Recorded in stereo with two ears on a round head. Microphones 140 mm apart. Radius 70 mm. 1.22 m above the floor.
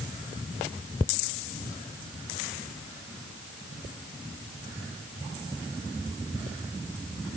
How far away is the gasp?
No gasp in this recording.